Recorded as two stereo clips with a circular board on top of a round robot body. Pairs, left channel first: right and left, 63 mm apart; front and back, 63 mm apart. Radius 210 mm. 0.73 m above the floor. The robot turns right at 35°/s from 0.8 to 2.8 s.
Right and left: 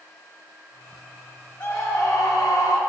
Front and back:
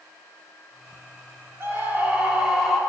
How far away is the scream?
About 4 m.